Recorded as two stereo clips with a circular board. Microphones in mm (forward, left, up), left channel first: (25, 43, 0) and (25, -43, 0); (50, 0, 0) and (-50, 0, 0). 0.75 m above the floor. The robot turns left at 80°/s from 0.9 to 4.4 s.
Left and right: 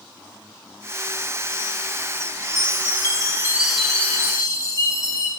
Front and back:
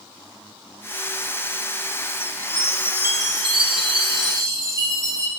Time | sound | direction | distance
2.6 | a chime | 80° right | 0.6 m